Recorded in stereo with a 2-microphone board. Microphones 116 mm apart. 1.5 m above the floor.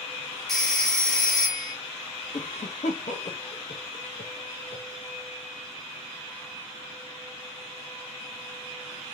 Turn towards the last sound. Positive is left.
turn(degrees=75)  # may be behind; listen again after turning